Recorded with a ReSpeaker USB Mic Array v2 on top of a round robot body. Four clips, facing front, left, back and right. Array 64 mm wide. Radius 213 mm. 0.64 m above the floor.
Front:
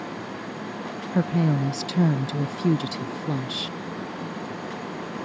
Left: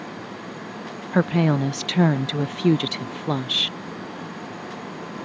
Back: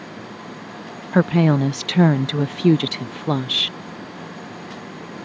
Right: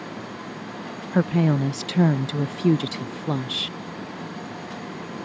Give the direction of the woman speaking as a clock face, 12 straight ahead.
7 o'clock.